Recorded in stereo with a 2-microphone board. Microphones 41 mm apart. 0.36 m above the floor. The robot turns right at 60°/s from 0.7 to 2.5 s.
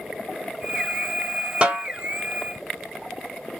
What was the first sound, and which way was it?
A snare drum, 30° right (ahead or behind).